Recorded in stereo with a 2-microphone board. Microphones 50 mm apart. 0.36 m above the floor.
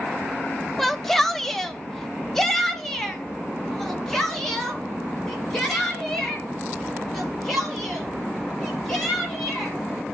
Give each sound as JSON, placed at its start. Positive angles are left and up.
{"t": 0.8, "sound": "a shout", "side_deg": 5, "distance_m": 0.9}